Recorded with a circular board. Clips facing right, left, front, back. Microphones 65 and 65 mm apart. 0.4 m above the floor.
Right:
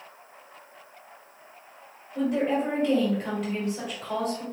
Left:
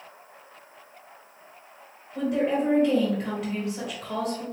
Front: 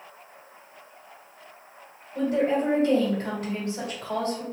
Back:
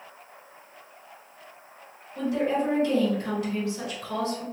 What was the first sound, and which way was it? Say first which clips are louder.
A woman speaking: even, front 2 dB; straight ahead.